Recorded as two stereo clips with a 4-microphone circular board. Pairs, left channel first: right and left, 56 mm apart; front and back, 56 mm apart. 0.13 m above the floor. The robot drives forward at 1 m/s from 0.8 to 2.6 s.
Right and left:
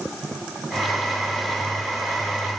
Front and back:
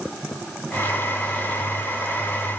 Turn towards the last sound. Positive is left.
No sound to turn to.